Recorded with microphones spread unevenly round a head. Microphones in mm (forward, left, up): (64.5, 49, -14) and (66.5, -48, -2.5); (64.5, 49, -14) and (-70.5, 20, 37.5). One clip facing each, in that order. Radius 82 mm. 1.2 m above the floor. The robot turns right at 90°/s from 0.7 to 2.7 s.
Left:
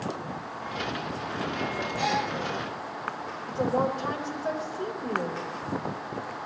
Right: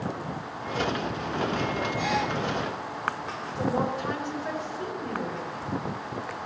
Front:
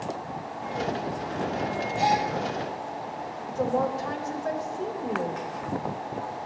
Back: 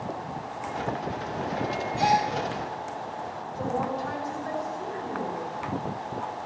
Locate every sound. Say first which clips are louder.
2.0 s a gasp: left 2 dB, back 1 dB; 85° left, 7.5 m; by 2.3 s 115° left, 7.5 m
3.5 s a woman speaking: left 2 dB, front 4 dB; 40° left, 4.5 m